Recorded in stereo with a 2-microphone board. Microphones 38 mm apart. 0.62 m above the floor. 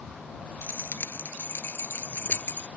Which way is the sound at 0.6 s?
75° left (ahead or behind).